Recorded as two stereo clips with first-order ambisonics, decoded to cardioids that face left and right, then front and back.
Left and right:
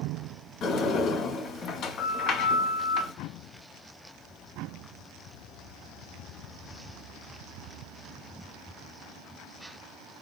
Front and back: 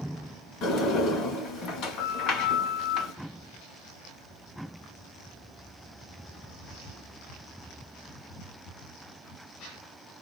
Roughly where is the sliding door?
Ahead left.